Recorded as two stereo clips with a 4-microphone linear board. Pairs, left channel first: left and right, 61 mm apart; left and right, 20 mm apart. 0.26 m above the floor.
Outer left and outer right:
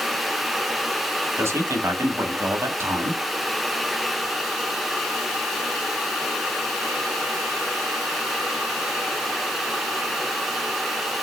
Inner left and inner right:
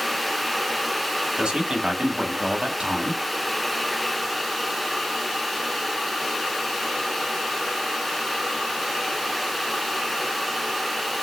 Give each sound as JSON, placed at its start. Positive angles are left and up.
{"t": 1.4, "sound": "a man speaking", "side_deg": -50, "distance_m": 1.4}